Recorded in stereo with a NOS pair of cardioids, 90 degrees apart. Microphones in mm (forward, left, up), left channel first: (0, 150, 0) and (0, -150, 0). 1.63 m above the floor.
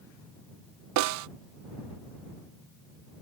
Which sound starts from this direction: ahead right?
A snare drum, at 1.0 s.